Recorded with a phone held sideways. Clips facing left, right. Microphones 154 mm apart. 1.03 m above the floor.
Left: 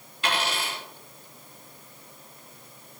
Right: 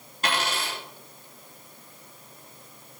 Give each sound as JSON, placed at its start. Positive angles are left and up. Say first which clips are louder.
{"t": 0.2, "sound": "a dropped coin", "louder": "even", "side_deg": -45, "distance_m": 4.0}